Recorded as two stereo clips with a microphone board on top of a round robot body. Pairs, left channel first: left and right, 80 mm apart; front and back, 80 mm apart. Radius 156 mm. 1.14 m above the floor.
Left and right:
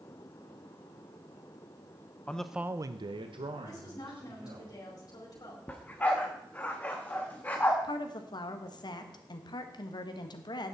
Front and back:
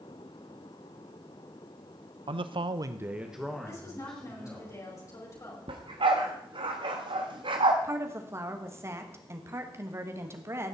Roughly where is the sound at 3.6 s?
Ahead left.